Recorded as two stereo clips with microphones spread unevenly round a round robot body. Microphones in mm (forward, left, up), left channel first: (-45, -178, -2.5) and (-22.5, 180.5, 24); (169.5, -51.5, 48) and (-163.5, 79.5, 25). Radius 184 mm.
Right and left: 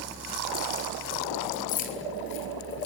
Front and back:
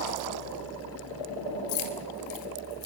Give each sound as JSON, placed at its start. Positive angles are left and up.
{"t": 1.7, "sound": "keys jangling", "azimuth_deg": -25, "distance_m": 3.0}